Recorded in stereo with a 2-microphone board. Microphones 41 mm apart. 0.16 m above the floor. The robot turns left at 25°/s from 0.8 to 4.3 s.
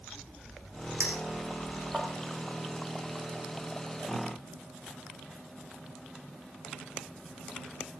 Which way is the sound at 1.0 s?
45° right (ahead or behind).